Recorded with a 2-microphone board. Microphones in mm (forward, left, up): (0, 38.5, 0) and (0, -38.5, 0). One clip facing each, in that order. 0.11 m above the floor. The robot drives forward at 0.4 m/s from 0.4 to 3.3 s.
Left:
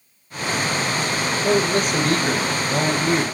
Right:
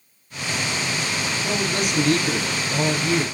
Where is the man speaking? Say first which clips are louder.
Left 7 dB; 45° left (ahead or behind), 2 m; by 3.2 s 40° left (ahead or behind), 2.5 m.